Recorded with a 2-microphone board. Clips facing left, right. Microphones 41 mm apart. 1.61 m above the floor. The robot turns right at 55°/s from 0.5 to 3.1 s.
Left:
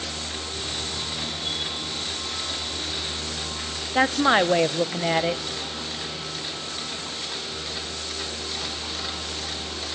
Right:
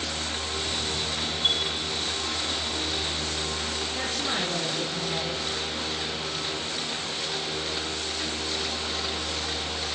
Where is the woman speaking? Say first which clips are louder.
Left 13 dB; 60° left (ahead or behind), 0.9 m.